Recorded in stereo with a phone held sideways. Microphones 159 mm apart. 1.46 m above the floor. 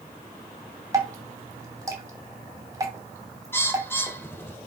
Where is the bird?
15° left (ahead or behind), 1.3 m.